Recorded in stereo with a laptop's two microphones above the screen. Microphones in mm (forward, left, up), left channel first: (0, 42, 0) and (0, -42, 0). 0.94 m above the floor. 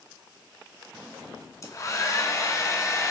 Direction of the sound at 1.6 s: 40° left (ahead or behind).